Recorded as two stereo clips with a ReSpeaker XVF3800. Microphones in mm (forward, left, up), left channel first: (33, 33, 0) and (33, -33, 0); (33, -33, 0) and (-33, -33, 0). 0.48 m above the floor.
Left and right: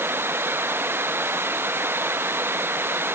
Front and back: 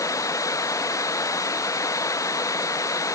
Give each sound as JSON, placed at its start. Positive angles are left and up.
{"t": 0.0, "sound": "running water", "azimuth_deg": -35}